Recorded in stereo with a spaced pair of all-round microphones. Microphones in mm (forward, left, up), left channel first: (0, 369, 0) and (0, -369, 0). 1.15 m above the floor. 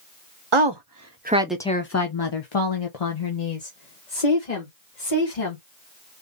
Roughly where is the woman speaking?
Right.